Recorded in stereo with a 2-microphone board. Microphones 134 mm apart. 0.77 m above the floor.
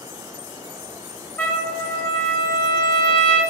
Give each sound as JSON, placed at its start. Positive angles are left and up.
{"t": 1.4, "sound": "a trumpet", "side_deg": 15, "distance_m": 3.0}